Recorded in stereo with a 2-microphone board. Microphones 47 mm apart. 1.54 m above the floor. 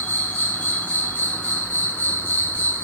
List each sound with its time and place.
0.0 s an insect: 40° left (ahead or behind), 3 m